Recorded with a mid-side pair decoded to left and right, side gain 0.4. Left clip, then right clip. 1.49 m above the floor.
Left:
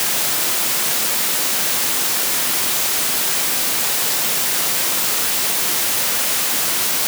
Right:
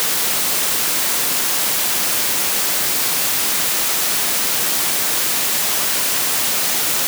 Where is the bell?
I don't hear a bell.